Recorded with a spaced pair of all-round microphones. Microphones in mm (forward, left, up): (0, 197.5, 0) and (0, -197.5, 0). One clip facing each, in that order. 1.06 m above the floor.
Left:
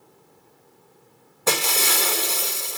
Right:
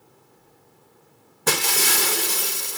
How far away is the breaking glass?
About 1.1 m.